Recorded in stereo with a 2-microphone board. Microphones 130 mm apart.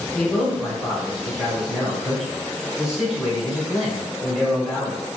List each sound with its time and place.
0.1 s a man speaking: 5° right (ahead or behind), 1.2 m